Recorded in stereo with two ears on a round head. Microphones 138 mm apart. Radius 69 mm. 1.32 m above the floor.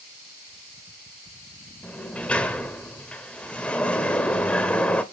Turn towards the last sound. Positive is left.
turn(degrees=10)  # may be behind; listen again after turning